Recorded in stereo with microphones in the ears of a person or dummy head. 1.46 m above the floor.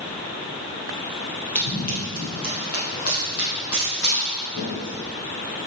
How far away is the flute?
No flute in this recording.